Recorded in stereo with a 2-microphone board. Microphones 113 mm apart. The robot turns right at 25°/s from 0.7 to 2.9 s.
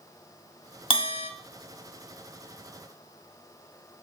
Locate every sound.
0.9 s a bell: 50° left (ahead or behind), 0.6 m; by 1.3 s 60° left (ahead or behind), 0.6 m